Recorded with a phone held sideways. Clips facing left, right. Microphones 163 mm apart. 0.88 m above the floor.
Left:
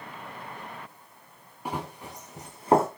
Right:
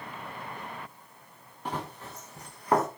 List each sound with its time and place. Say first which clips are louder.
1.6 s running footsteps: left 1 dB; 10° left (ahead or behind), 3.5 m; by 2.9 s 30° left (ahead or behind), 2.5 m